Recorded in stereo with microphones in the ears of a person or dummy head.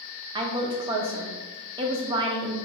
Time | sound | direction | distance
0.3 | a woman speaking | 30° right (ahead or behind) | 0.7 m